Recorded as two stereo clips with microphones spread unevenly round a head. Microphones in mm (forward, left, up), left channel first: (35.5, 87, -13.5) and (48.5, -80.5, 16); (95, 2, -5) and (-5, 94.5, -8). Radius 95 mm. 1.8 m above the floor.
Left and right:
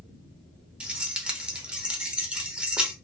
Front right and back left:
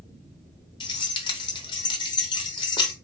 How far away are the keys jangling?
About 0.8 m.